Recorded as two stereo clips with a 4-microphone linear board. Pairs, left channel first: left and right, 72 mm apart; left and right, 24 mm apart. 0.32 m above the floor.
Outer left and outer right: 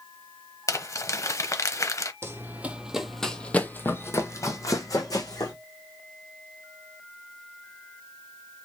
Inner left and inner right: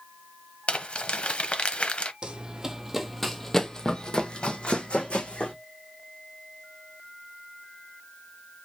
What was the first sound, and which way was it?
Crumpling, 45° left (ahead or behind).